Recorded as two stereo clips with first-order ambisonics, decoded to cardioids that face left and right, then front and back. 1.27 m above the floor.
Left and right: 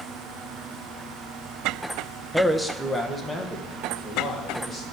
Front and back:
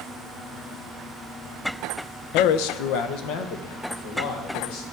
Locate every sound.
2.3 s a man speaking: straight ahead, 0.6 m; by 4.8 s 5° left, 2.5 m